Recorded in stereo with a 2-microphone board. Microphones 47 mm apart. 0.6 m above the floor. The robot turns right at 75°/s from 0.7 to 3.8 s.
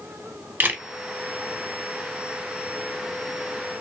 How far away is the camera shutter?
About 0.8 m.